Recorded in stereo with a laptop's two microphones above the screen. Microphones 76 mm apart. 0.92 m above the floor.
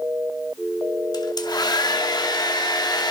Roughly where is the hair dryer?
Left.